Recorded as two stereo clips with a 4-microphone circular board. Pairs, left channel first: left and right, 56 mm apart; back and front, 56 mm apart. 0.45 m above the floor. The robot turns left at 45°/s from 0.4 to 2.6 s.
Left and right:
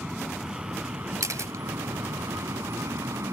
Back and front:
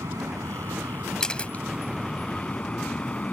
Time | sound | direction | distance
0.0 | an aircraft | 15° right | ?
1.2 | a camera shutter | 105° right | ?